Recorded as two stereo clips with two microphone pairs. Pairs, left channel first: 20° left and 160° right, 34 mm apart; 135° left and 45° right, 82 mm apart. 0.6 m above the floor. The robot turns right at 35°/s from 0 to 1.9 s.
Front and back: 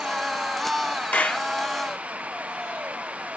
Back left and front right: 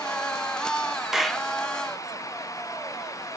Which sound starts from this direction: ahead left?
A clap, at 1.1 s.